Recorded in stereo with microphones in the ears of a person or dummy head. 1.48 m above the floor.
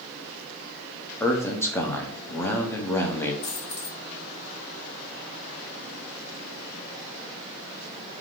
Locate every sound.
1.2 s a man speaking: 10° left (ahead or behind), 0.6 m
3.4 s a dropped coin: 60° left (ahead or behind), 1.4 m